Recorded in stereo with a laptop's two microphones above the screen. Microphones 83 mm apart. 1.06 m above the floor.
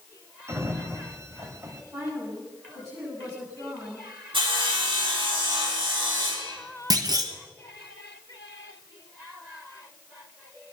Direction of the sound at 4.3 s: 80° right.